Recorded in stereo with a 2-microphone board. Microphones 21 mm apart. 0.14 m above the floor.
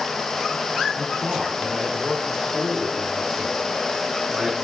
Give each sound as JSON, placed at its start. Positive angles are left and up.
{"t": 1.0, "sound": "a man speaking", "side_deg": -55, "distance_m": 3.0}